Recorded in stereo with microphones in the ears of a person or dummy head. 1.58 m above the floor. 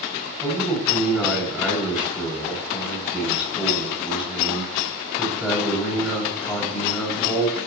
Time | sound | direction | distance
0.4 | a man speaking | 5° right (ahead or behind) | 9 m